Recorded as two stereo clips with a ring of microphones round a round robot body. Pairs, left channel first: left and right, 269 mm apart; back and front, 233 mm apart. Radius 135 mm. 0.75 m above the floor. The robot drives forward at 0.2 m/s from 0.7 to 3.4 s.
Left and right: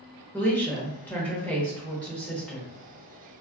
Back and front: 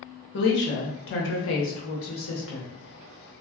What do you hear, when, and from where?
0.3 s a woman speaking: 170° left, 0.8 m; by 2.7 s 175° left, 1.1 m